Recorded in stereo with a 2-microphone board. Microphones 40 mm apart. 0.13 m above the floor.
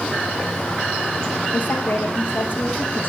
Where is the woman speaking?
55° left (ahead or behind), 5.5 m.